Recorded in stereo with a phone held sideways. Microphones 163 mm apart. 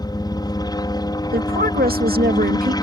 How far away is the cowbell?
No cowbell in this recording.